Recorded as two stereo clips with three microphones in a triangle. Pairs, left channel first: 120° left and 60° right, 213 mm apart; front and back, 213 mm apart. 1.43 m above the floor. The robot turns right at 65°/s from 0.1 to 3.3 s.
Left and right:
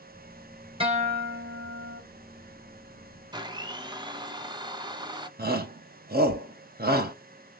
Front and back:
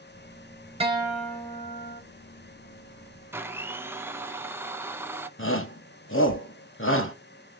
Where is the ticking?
No ticking in this recording.